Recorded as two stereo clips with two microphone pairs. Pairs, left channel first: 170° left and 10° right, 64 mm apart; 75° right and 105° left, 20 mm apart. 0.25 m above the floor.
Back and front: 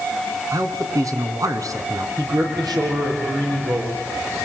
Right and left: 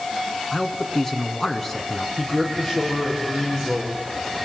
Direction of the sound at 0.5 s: 5° right.